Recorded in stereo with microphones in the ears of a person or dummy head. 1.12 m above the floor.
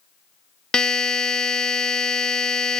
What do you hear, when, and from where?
0.7 s a buzzer: 5° left (ahead or behind)